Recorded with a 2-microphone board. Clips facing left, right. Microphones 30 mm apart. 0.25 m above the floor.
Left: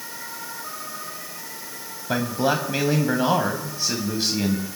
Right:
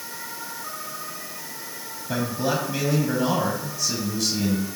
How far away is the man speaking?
About 1.6 m.